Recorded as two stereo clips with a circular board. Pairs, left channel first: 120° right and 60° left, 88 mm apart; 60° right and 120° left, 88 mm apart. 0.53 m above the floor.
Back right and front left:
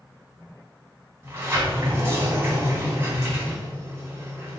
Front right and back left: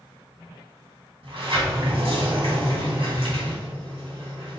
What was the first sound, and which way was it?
A sliding door, 125° left.